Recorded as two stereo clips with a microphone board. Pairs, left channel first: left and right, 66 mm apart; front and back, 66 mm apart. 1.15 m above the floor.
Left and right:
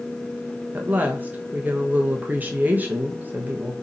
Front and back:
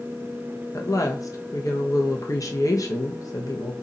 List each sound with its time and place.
0.7 s a woman speaking: 25° right, 1.1 m